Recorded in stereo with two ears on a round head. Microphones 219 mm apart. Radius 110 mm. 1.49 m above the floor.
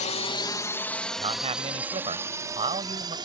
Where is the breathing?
I don't hear breathing.